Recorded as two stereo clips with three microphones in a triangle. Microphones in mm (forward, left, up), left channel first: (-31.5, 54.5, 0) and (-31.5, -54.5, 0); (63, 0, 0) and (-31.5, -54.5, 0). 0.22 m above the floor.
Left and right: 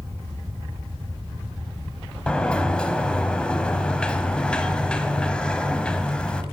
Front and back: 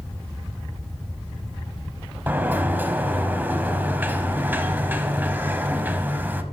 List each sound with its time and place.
2.3 s a sliding door: 160° left, 1.0 m